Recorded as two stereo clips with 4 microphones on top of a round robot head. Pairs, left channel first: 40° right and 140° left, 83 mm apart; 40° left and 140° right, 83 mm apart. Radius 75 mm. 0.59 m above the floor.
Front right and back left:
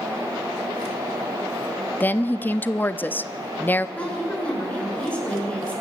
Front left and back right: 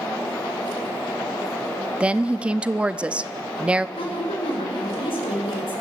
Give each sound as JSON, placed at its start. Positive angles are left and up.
{"t": 2.0, "sound": "a woman speaking", "azimuth_deg": -80, "distance_m": 0.7}
{"t": 4.0, "sound": "a woman speaking", "azimuth_deg": 35, "distance_m": 7.0}